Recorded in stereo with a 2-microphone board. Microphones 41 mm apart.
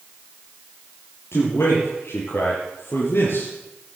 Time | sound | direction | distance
1.3 | a man speaking | 75° left (ahead or behind) | 4.5 m